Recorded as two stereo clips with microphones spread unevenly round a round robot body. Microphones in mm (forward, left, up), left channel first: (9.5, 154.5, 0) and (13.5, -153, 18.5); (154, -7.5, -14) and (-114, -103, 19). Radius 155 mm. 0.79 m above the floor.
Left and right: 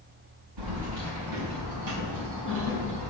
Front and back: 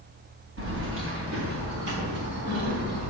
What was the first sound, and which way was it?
Keys jangling, 115° right.